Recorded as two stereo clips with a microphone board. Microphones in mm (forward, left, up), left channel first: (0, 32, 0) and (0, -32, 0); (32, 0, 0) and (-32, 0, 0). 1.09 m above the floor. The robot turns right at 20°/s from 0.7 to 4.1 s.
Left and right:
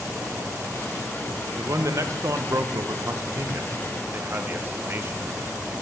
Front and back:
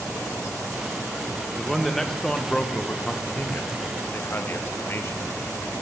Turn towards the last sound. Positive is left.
turn(degrees=-45)